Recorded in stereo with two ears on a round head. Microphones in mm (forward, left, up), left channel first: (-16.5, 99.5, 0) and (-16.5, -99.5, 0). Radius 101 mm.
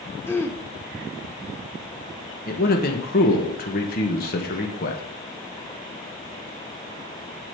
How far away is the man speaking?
About 1.3 m.